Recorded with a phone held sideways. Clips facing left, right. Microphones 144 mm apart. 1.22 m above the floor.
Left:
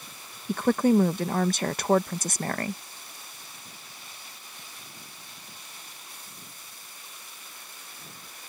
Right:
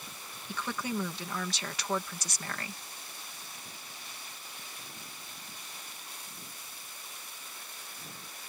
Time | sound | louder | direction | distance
0.5 | a woman speaking | left 14 dB | 50° left (ahead or behind) | ?